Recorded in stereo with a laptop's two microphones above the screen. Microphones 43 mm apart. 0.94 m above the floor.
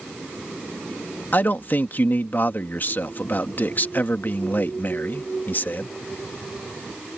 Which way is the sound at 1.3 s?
45° left (ahead or behind).